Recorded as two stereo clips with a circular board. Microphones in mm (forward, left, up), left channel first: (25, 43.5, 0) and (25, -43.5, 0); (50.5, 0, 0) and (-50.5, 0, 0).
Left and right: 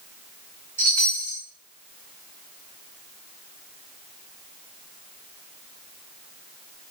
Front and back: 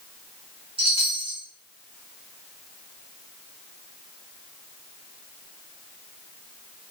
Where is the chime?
155° left, 2 m.